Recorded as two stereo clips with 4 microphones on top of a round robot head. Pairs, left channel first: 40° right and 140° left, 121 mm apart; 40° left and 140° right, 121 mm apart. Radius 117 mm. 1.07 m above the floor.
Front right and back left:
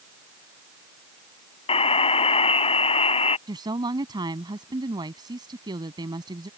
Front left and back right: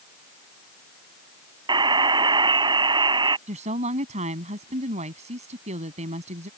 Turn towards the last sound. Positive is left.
turn(degrees=-165)